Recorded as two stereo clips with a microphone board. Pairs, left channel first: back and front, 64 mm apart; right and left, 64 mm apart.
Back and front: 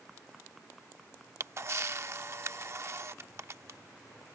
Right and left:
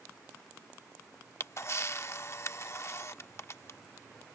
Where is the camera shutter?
45° right.